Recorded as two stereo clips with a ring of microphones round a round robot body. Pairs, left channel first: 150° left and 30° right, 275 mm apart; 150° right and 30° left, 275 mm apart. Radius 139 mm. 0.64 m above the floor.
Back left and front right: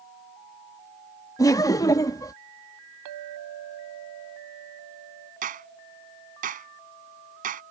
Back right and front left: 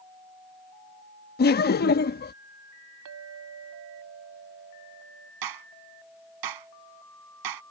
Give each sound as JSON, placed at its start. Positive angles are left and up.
{"t": 1.4, "sound": "laughter", "azimuth_deg": -140}
{"t": 3.0, "sound": "a clink", "azimuth_deg": -10}
{"t": 5.4, "sound": "a clap", "azimuth_deg": 30}